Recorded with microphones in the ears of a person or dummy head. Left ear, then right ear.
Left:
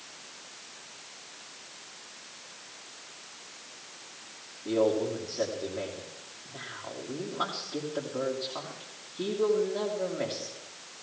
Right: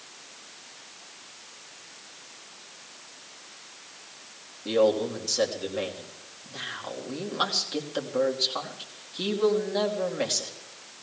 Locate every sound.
4.7 s a man speaking: 70° right (ahead or behind), 2.5 m